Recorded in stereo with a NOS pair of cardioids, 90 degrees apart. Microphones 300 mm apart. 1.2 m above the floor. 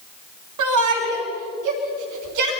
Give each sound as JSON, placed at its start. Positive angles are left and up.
{"t": 0.6, "sound": "a shout", "azimuth_deg": -70, "distance_m": 3.0}